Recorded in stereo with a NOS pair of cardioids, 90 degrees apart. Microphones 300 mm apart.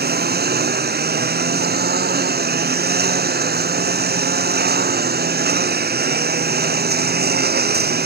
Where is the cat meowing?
No cat meowing in this recording.